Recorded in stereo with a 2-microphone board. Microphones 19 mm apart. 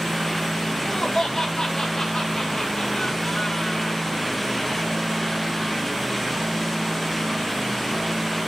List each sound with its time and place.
0.7 s laughter: 40° left (ahead or behind), 2 m